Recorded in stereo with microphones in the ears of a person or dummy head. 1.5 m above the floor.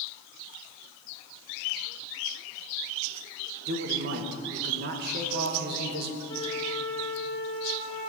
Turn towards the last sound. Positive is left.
turn(degrees=20)  # may be behind; listen again after turning